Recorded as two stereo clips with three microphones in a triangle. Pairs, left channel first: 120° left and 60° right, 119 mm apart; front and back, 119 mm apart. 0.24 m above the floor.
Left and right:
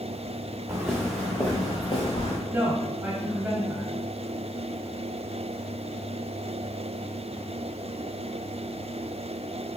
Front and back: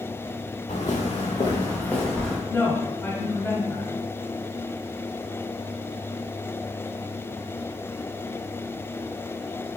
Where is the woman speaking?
15° right, 1.0 m.